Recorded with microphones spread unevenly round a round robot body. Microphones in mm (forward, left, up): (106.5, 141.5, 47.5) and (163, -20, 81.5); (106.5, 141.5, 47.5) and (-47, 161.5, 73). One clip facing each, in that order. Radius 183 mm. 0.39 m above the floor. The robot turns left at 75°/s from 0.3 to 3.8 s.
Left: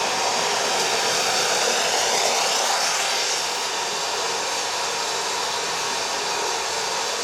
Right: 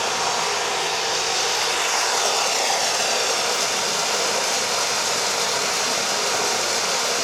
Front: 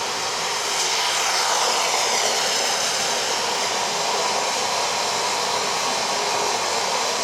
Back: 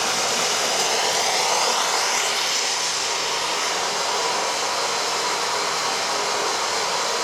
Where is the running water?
175° right, 2 m; by 7.2 s 80° right, 2 m.